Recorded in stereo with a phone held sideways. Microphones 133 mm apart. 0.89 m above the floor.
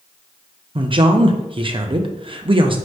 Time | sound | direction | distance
0.8 | a man speaking | 40° right (ahead or behind) | 0.6 m